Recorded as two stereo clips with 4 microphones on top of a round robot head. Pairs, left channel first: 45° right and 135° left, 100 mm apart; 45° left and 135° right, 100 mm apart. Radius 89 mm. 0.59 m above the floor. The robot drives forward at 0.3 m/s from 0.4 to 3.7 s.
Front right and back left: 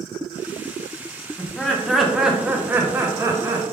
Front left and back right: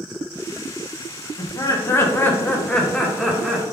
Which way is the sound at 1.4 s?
30° left.